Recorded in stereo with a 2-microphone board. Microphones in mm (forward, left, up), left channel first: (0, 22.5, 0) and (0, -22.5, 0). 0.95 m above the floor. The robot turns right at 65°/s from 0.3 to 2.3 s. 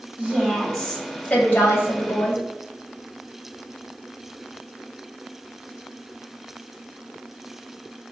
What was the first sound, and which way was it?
A woman speaking, 35° right.